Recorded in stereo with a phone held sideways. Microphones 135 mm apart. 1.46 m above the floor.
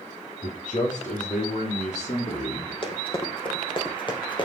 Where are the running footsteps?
40° left (ahead or behind), 3.5 m; by 4.5 s 35° left (ahead or behind), 2.5 m.